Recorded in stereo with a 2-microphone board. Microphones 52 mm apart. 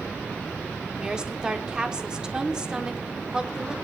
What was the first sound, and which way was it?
A woman speaking, 15° right (ahead or behind).